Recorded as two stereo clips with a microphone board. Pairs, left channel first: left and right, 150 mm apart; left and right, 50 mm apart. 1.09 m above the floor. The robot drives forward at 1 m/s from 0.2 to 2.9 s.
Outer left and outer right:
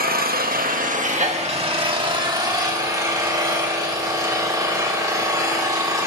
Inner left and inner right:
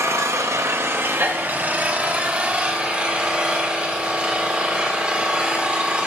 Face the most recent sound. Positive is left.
turn(degrees=-25)  # may be behind; listen again after turning